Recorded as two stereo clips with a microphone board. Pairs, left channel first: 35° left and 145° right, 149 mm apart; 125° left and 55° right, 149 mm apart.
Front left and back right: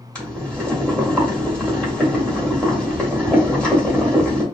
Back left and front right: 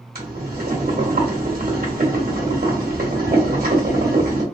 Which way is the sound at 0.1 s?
50° right.